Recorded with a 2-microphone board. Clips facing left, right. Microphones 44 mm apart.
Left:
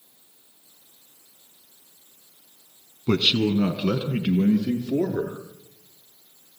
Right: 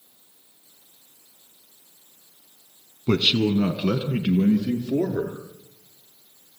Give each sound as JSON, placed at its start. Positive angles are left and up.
{"t": 3.1, "sound": "a man speaking", "side_deg": -10, "distance_m": 1.4}